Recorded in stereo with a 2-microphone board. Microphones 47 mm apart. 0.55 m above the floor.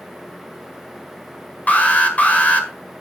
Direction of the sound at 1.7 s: 35° left (ahead or behind).